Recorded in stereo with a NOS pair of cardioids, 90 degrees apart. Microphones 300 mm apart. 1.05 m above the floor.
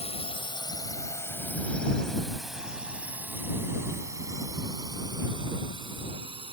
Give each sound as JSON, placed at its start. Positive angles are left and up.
{"t": 0.0, "sound": "a drone", "azimuth_deg": 20}